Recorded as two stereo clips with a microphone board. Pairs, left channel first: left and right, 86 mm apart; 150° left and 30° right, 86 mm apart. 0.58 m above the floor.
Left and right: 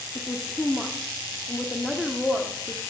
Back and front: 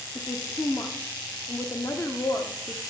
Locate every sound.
0.1 s a woman speaking: 170° left, 0.8 m